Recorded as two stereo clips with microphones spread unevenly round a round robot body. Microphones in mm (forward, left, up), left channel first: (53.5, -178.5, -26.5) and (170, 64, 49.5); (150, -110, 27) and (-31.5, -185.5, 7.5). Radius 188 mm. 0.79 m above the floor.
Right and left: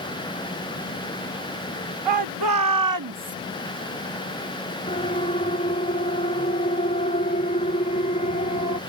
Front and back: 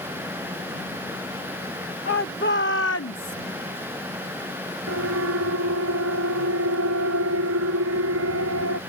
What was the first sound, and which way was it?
A shout, 90° left.